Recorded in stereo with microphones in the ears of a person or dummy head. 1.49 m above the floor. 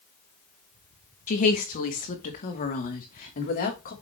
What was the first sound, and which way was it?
A woman speaking, 40° left (ahead or behind).